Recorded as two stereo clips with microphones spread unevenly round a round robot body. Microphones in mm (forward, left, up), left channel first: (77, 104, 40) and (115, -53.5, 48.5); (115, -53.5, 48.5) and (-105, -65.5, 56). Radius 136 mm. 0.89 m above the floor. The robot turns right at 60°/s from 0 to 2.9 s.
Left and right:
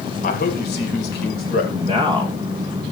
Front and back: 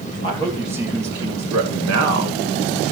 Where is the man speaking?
70° left, 3 m; by 2.4 s 160° right, 3 m.